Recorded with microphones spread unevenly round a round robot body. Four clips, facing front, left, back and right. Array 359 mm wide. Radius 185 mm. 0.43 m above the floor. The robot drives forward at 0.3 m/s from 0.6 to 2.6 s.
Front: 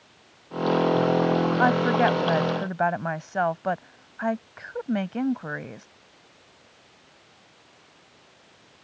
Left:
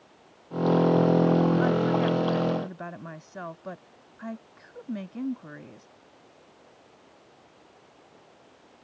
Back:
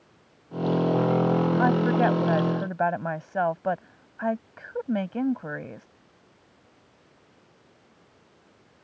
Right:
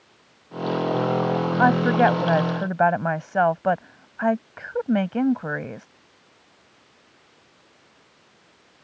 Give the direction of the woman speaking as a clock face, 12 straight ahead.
2 o'clock.